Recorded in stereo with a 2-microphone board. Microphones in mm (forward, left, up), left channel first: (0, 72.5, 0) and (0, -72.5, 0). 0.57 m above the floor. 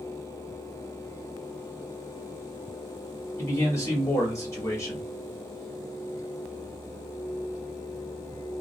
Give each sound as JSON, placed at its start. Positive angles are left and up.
{"t": 3.4, "sound": "a man speaking", "side_deg": 20, "distance_m": 1.4}